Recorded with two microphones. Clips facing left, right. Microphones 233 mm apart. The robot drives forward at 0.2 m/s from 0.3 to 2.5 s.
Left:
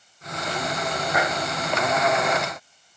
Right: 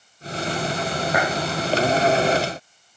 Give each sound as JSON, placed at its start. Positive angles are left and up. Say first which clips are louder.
{"t": 1.1, "sound": "a clap", "louder": "right 2 dB", "side_deg": -55, "distance_m": 8.5}